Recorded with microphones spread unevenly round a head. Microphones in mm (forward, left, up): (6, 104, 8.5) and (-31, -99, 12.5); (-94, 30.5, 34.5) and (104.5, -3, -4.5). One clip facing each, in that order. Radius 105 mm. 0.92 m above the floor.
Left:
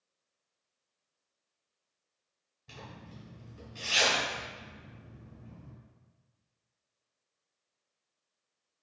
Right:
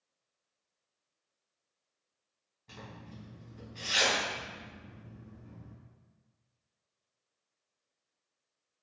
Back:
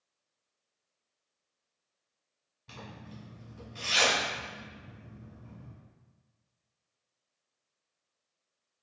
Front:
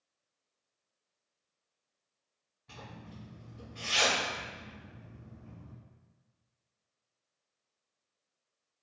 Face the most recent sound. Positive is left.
turn(degrees=160)